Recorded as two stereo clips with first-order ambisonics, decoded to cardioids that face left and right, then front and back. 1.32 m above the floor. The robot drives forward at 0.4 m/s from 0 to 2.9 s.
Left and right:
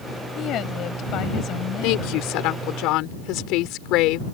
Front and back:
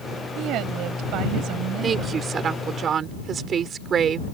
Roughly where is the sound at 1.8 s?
Behind left.